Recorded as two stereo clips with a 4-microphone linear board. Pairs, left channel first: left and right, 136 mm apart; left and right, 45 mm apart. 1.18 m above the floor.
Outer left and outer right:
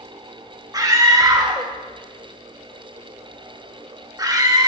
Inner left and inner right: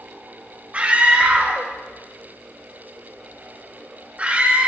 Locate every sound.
0.7 s a scream: 30° right (ahead or behind), 1.9 m